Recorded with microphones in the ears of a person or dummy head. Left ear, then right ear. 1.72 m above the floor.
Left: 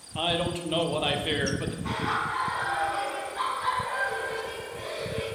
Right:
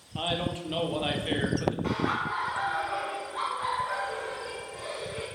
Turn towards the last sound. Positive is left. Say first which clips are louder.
# left 1 dB
turn(degrees=-55)  # may be behind; listen again after turning